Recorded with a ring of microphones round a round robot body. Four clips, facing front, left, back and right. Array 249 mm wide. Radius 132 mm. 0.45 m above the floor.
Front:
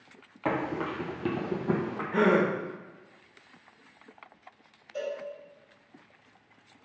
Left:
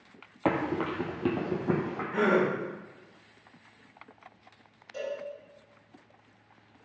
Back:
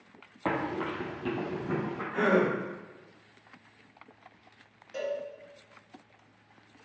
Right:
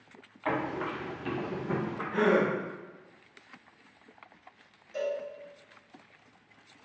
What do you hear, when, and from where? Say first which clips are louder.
0.5 s running footsteps: left 3 dB, front 1 dB; 85° left, 0.9 m; by 2.0 s 50° left, 1.4 m
2.1 s a gasp: even, front 2 dB; 10° left, 0.9 m
4.9 s a cowbell: right 3 dB, back 1 dB; 175° right, 2.0 m